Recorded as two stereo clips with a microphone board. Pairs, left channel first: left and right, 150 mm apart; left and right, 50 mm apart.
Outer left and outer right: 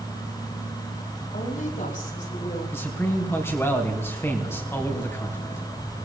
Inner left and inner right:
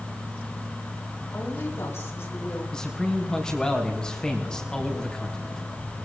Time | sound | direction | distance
1.3 | a woman speaking | 60° left (ahead or behind) | 5.5 m
2.7 | a man speaking | 15° left (ahead or behind) | 3.5 m